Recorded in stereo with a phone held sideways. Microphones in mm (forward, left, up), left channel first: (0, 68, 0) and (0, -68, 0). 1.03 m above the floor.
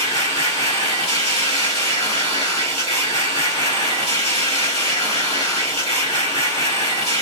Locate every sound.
0.0 s a machine running: 50° left (ahead or behind), 1.6 m